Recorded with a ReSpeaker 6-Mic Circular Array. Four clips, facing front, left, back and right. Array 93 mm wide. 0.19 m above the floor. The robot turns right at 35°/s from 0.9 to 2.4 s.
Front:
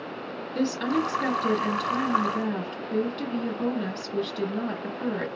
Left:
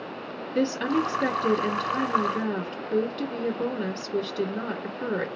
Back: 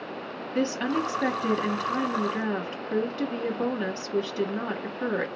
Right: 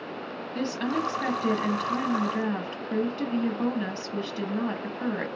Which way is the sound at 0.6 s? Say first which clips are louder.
Left 4 dB, front 1 dB; 165° left.